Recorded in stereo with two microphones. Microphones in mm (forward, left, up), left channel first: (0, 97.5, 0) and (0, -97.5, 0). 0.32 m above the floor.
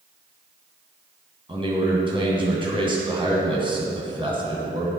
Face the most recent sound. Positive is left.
turn(degrees=-25)  # may be behind; listen again after turning